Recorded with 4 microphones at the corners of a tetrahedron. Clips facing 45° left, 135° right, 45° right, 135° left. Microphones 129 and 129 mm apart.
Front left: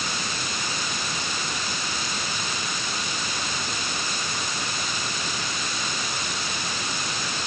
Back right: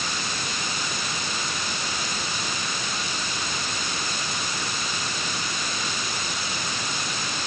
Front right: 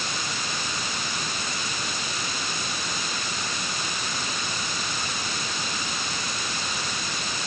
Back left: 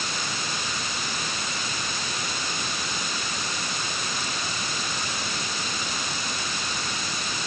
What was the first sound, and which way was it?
Only background noise.